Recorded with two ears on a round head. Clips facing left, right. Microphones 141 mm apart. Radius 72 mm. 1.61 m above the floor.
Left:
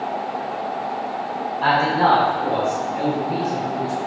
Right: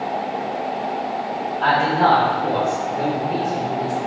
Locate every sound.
1.6 s a man speaking: 10° left (ahead or behind), 4.5 m; by 4.0 s 15° left (ahead or behind), 7.5 m